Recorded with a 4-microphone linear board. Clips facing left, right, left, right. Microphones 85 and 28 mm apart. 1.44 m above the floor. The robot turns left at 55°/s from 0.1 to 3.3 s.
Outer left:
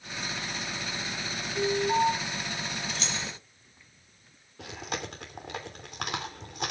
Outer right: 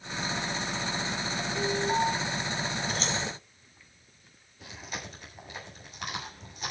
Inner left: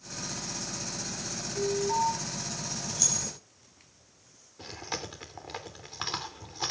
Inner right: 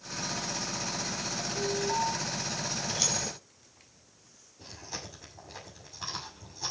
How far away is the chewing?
About 3 m.